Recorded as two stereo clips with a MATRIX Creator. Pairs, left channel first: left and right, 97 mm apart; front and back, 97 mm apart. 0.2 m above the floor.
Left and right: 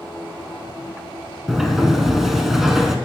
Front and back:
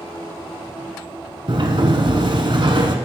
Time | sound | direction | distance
1.5 | a sliding door | 175° right | 0.9 m